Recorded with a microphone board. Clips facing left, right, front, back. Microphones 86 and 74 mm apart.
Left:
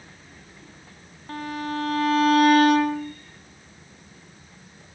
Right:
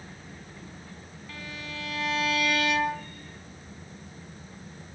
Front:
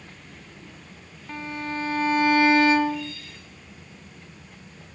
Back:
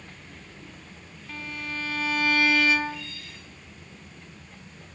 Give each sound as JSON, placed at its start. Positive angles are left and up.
{"t": 1.3, "sound": "a violin", "azimuth_deg": 55, "distance_m": 2.5}